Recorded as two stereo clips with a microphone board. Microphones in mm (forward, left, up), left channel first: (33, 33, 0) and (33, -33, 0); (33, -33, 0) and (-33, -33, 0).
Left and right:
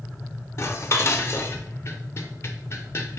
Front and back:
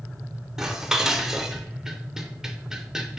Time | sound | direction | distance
0.6 | dishes clattering | 100° left | 0.7 m